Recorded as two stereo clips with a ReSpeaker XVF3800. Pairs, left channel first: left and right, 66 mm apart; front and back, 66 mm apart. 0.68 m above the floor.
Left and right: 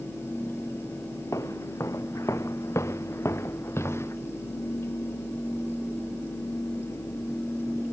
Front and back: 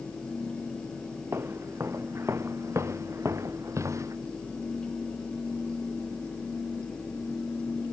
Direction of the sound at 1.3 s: 130° left.